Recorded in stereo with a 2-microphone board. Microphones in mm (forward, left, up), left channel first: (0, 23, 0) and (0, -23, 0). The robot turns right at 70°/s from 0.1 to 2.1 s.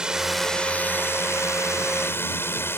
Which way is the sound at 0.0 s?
15° right (ahead or behind).